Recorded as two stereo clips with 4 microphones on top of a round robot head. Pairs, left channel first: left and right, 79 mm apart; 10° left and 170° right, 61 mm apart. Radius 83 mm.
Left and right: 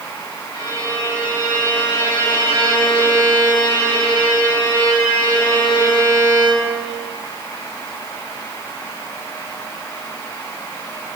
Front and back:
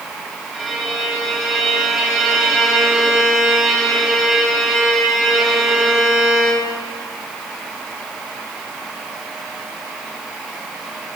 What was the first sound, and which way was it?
A violin, 110° left.